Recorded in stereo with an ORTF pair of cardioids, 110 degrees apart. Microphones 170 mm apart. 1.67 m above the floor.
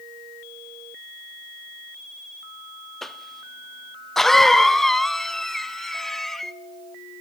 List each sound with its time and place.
3.0 s a cough: 5° left, 0.7 m